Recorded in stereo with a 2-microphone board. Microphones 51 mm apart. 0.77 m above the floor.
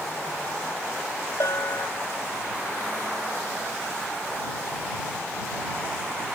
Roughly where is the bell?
Left.